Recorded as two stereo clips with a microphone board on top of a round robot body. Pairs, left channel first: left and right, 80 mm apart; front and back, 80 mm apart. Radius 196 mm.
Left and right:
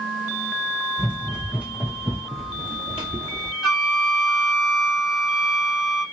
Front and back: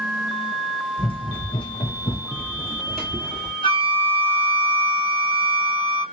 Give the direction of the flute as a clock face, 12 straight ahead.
12 o'clock.